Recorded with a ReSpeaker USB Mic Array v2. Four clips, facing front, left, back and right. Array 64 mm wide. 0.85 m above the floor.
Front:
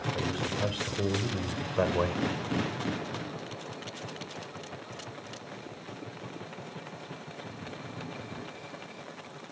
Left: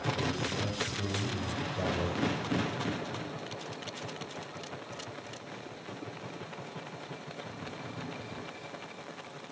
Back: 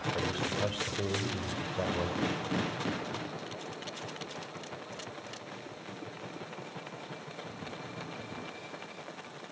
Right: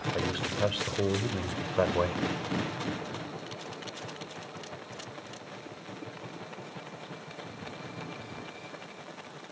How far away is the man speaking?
About 3 m.